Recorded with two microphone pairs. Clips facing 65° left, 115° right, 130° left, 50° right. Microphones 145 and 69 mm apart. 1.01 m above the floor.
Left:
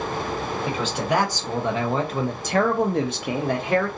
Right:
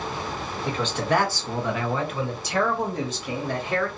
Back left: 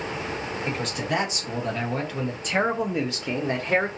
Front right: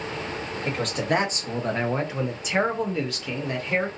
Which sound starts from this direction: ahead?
A man speaking, at 0.7 s.